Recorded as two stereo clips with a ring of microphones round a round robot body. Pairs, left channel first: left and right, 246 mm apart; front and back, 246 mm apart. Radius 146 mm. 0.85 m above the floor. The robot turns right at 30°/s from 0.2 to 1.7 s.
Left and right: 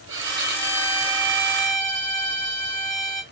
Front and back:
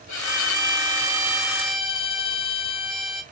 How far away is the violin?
About 4.5 m.